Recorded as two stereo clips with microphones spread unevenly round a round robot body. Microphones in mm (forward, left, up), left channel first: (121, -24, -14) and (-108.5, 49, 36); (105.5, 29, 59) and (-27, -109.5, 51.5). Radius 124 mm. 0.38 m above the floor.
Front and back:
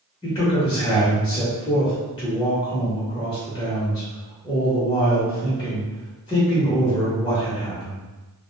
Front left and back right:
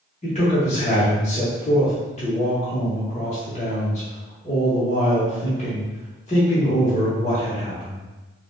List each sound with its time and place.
0.2 s a man speaking: 20° left, 1.0 m